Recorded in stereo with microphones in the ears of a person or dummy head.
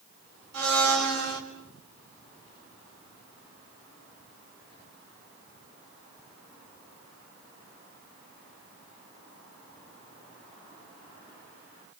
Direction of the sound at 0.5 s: 85° right.